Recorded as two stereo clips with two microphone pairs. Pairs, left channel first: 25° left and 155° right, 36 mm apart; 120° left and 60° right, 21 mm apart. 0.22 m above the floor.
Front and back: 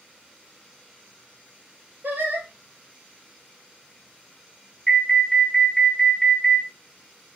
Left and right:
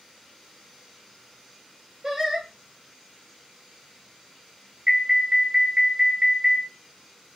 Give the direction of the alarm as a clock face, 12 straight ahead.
2 o'clock.